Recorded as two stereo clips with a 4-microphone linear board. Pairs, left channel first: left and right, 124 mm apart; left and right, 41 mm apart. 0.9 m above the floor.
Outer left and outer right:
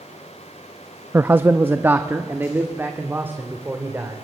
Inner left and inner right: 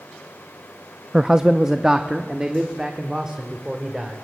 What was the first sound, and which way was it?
A man speaking, 20° right (ahead or behind).